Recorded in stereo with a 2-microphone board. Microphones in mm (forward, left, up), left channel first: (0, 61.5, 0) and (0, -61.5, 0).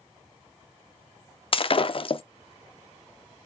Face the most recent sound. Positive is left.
turn(degrees=45)  # may be behind; listen again after turning